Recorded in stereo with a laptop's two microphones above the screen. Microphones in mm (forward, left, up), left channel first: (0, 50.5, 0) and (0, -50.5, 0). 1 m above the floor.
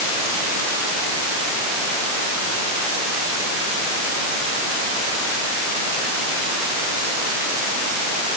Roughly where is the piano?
No piano in this recording.